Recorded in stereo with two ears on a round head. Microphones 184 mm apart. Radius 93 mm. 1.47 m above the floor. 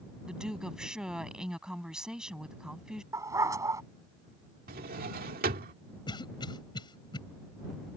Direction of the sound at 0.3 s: 5° right (ahead or behind).